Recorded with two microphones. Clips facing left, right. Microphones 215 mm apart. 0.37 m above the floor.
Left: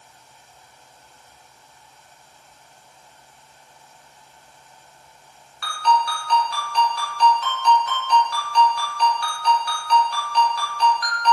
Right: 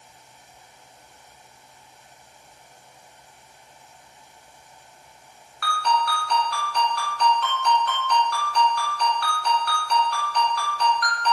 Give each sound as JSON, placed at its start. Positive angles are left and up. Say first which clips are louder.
{"t": 5.6, "sound": "a ringtone", "louder": "left 3 dB", "side_deg": -55, "distance_m": 1.5}